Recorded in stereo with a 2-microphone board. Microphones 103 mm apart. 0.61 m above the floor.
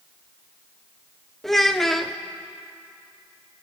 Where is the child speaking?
5° left (ahead or behind), 0.7 m.